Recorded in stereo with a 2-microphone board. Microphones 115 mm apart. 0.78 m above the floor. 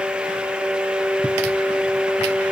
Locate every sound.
Only background noise.